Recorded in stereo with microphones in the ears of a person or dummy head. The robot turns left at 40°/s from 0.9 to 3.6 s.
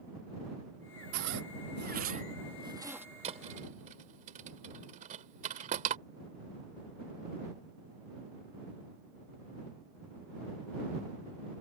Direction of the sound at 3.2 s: 30° right (ahead or behind).